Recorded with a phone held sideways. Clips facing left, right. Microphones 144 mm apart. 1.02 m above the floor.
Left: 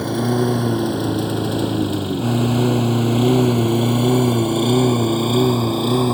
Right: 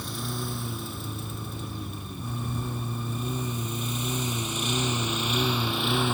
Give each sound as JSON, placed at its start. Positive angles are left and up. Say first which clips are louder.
{"t": 0.0, "sound": "a lawn mower", "louder": "left 17 dB", "side_deg": 65}